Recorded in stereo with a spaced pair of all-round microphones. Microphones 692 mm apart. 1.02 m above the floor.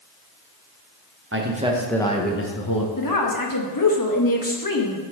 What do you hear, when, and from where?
1.3 s a man speaking: 20° right (ahead or behind), 0.9 m; by 2.9 s 35° left (ahead or behind), 1.0 m
3.0 s a woman speaking: 30° left (ahead or behind), 1.1 m